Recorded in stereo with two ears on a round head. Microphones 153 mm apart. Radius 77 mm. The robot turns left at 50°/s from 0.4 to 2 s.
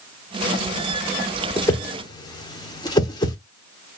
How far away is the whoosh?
About 0.8 m.